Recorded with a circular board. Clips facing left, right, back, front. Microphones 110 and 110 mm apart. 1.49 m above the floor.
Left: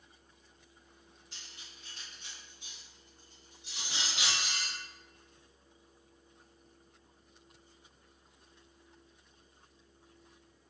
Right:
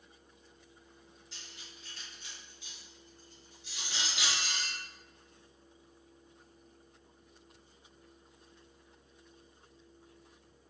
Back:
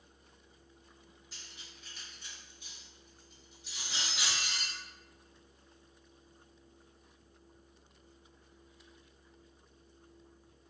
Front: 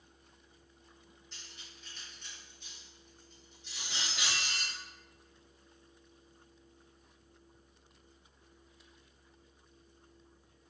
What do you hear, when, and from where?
1.3 s cutlery clinking: 100° left, 1.7 m